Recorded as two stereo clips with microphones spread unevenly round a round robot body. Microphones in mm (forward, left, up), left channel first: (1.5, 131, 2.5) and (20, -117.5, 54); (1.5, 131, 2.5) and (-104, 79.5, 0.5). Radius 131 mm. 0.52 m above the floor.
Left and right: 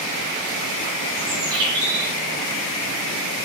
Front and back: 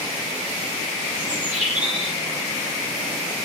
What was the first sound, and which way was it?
A bird, 100° right.